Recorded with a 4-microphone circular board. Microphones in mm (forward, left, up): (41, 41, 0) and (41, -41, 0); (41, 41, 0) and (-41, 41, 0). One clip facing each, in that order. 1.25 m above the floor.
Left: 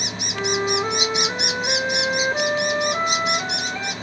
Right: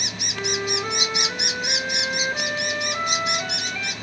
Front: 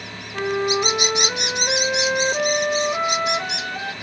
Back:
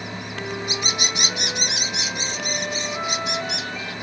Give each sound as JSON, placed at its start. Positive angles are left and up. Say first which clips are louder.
{"t": 0.3, "sound": "a flute", "louder": "left 5 dB, front 10 dB", "azimuth_deg": 30, "distance_m": 1.3}